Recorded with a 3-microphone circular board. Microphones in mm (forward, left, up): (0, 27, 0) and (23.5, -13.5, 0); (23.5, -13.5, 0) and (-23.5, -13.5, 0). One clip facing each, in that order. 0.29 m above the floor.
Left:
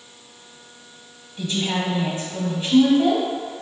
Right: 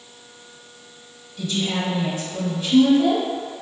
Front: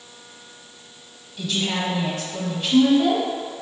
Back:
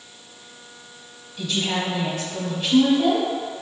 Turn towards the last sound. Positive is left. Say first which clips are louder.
# even, even
turn(degrees=85)